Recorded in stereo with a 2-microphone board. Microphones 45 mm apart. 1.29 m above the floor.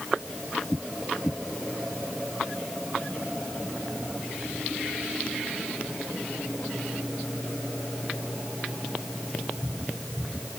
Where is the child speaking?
I don't hear a child speaking.